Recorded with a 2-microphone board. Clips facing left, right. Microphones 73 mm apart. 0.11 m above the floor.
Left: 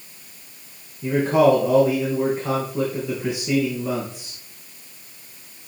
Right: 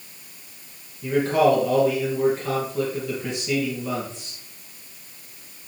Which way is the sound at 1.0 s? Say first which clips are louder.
Left 2 dB; 15° left (ahead or behind).